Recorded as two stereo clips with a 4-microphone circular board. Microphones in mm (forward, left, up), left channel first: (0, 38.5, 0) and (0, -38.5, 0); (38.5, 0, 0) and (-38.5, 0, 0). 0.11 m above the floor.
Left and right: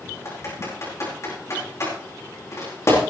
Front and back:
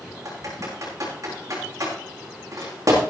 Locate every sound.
0.2 s typing on a keyboard: 140° left, 7.5 m